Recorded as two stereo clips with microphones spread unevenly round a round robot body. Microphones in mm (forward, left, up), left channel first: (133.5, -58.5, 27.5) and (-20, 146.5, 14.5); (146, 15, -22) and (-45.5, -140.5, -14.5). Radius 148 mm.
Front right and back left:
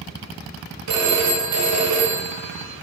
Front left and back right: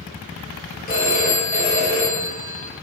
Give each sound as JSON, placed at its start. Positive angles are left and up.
{"t": 0.9, "sound": "a phone ringing", "azimuth_deg": 105, "distance_m": 1.7}